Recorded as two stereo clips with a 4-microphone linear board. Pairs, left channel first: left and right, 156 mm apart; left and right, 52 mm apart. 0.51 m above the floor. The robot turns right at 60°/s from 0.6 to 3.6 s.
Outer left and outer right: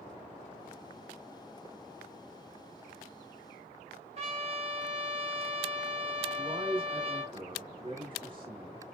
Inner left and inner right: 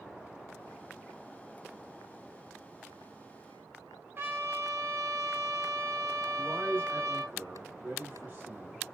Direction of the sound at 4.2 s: 40° right (ahead or behind).